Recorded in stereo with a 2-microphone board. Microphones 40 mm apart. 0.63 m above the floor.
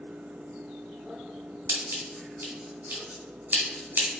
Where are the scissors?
50° right (ahead or behind), 1.5 m.